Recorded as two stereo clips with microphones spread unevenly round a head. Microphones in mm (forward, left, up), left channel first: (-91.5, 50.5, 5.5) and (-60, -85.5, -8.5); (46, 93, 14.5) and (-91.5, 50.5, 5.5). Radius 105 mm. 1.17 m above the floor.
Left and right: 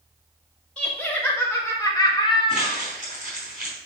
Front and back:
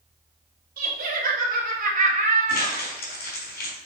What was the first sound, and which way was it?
Laughter, 175° right.